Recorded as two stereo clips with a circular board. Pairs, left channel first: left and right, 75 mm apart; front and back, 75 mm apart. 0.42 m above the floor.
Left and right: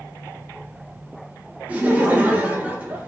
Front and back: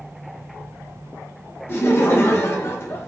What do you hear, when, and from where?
1.7 s laughter: 30° right, 1.0 m